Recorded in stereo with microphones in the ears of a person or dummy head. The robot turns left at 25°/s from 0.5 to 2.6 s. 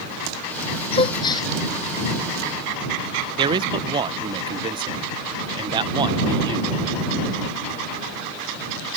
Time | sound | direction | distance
0.9 | a gasp | 35° left (ahead or behind) | ?
3.4 | a man speaking | 25° right (ahead or behind) | ?